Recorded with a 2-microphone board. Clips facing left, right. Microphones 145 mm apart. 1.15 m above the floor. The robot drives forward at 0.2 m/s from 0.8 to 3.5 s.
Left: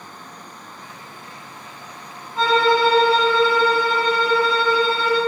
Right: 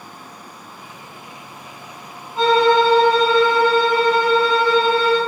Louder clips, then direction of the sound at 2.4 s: Right 3 dB; 20° right (ahead or behind).